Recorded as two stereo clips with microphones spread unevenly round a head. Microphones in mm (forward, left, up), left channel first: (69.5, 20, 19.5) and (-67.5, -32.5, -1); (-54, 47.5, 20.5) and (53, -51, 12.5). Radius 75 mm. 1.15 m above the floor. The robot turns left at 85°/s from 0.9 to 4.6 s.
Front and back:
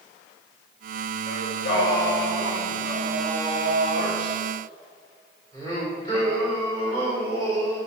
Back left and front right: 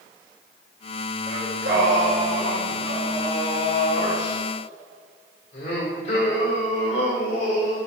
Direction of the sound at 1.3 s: 10° left.